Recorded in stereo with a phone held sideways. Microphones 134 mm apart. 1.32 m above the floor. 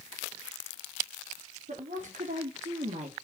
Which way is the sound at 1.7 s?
80° right.